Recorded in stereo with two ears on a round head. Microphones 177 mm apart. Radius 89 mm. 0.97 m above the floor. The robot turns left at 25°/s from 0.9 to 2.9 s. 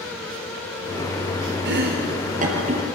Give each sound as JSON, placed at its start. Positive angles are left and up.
{"t": 1.6, "sound": "chopping", "side_deg": -60, "distance_m": 3.5}